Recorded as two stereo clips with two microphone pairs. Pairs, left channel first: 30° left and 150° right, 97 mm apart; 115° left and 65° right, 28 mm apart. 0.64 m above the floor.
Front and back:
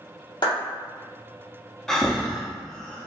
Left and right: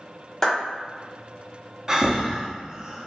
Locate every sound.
0.4 s a clap: 50° left, 1.4 m
1.9 s breathing: 50° right, 0.6 m